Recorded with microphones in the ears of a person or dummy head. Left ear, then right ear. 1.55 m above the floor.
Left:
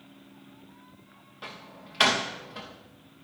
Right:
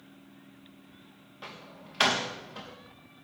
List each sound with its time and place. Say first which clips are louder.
1.4 s a door slam: left 2 dB; centre (ahead or behind), 1.4 m